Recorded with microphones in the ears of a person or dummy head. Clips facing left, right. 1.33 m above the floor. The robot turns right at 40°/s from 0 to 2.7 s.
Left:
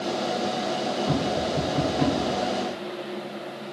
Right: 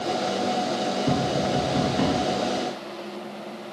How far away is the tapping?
About 2.0 m.